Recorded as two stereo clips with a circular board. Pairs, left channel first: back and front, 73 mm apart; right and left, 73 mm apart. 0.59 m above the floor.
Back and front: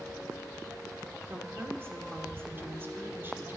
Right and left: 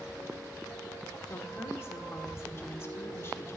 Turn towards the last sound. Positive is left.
turn(degrees=-50)